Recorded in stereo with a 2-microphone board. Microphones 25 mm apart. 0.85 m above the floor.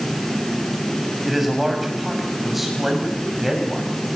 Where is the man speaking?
10° right (ahead or behind), 6.5 m.